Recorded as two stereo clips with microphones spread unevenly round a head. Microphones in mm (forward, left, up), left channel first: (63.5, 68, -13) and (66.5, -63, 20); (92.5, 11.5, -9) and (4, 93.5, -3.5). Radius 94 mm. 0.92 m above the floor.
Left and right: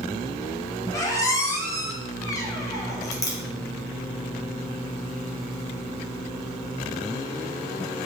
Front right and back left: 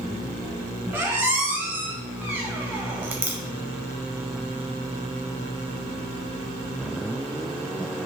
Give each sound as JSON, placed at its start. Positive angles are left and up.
{"t": 0.9, "sound": "a squeak", "azimuth_deg": 160, "distance_m": 0.7}